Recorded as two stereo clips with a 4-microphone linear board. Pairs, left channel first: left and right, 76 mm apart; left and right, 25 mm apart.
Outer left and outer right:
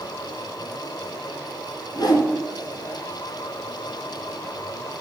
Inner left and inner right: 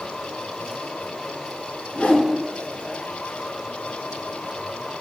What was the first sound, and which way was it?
A whoosh, 60° left (ahead or behind).